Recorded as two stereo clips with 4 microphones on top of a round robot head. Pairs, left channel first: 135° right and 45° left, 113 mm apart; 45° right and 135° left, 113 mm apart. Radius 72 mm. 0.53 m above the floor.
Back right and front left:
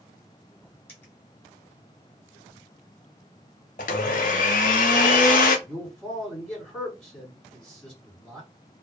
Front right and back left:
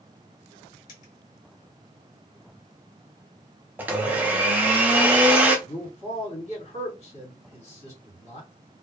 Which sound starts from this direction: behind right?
A blender, at 3.8 s.